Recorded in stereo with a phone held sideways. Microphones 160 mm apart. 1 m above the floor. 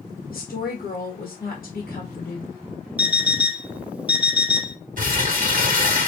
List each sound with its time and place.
0.3 s a woman speaking: 65° left (ahead or behind), 1.5 m
3.0 s an alarm clock: 10° right (ahead or behind), 0.6 m
5.0 s crumpling: 60° right (ahead or behind), 1.3 m